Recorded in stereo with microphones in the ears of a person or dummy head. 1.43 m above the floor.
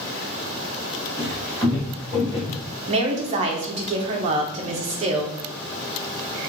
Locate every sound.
1.2 s footsteps: 5° right (ahead or behind), 1.4 m; by 2.6 s 35° left (ahead or behind), 1.7 m
2.9 s a woman speaking: 35° right (ahead or behind), 0.7 m